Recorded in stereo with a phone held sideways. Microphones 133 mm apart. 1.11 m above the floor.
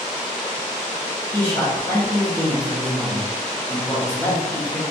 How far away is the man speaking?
About 1.2 m.